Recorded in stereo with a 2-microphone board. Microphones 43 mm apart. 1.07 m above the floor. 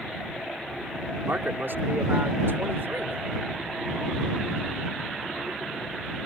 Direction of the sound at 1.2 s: 60° right (ahead or behind).